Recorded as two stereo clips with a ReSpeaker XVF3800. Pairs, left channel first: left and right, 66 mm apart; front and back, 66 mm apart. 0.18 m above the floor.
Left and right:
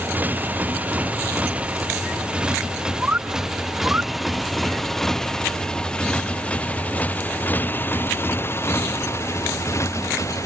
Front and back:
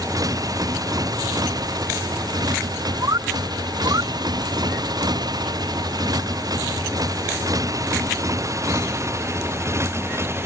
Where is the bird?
155° right.